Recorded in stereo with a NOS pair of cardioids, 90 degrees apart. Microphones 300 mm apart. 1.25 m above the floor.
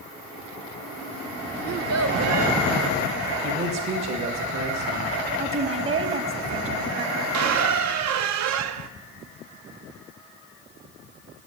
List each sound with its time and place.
1.6 s a child speaking: 55° right, 1.0 m
3.4 s a man speaking: 65° right, 1.9 m
5.4 s a woman speaking: 45° right, 1.3 m
7.3 s a squeak: 65° right, 0.5 m